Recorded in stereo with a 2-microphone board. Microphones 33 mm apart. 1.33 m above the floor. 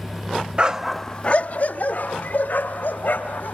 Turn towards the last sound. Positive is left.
turn(degrees=70)  # may be behind; listen again after turning